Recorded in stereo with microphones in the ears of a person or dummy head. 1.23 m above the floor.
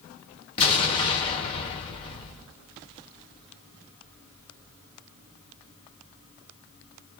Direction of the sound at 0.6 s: 30° left (ahead or behind).